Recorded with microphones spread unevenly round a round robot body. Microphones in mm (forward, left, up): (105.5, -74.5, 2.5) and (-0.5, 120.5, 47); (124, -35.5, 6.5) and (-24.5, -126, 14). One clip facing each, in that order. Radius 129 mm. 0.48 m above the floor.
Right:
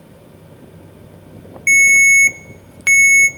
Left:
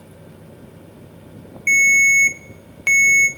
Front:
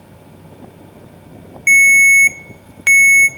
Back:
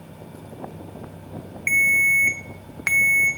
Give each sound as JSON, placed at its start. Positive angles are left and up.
{"t": 1.7, "sound": "a ringtone", "azimuth_deg": -10, "distance_m": 0.6}